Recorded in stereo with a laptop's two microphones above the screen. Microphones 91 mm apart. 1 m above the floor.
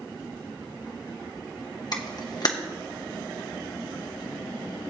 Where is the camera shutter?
50° left (ahead or behind), 1.0 m.